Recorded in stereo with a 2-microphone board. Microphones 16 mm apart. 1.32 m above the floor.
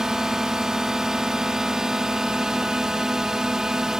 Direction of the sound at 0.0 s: 45° right (ahead or behind).